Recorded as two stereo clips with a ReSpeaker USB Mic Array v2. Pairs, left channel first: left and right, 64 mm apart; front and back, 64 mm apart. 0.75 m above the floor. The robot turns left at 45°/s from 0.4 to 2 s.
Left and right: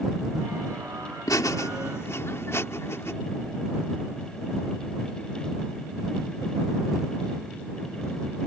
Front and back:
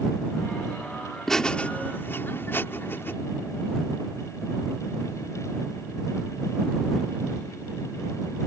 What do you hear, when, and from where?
1.3 s laughter: 85° left; by 3.1 s 50° left